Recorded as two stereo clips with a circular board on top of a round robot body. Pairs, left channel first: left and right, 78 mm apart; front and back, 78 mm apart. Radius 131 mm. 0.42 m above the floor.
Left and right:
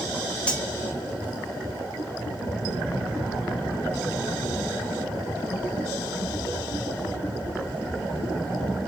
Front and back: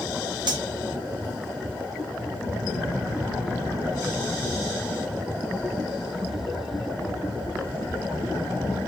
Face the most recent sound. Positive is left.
turn(degrees=165)